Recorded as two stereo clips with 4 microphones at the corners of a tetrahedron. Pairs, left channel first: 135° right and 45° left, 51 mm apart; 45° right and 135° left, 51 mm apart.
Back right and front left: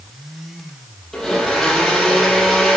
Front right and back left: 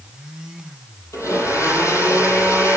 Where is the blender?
55° right, 6.5 m.